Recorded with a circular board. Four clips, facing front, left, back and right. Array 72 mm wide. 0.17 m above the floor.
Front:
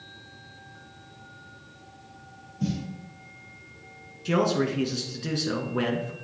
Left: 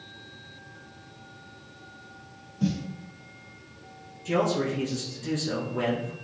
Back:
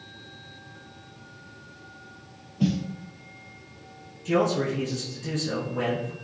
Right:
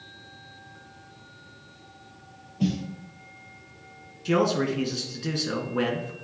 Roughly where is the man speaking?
Ahead right.